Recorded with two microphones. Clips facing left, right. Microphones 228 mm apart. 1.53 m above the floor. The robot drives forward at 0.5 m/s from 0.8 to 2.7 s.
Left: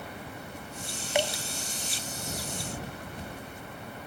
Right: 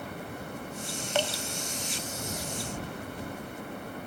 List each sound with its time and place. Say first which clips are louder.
1.1 s dripping: left 2 dB; 10° left (ahead or behind), 0.8 m; by 1.4 s 15° left (ahead or behind), 0.7 m